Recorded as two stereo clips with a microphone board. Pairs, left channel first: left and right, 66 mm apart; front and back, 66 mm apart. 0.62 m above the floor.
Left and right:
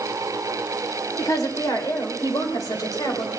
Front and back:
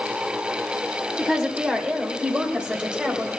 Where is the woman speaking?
105° left, 2.5 m.